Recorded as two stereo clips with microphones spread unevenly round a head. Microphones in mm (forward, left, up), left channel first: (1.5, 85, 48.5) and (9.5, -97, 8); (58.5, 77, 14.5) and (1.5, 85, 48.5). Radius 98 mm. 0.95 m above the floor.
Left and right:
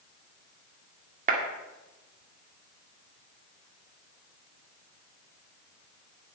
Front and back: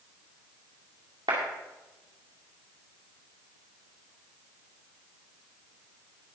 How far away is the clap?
About 1.9 m.